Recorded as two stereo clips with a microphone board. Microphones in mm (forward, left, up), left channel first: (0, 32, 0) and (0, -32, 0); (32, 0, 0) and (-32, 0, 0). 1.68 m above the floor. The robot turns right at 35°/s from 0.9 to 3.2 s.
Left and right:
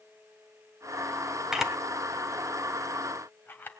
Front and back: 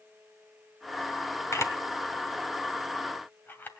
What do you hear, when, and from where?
1.5 s a camera shutter: 10° right, 2 m; by 3.7 s 45° left, 2 m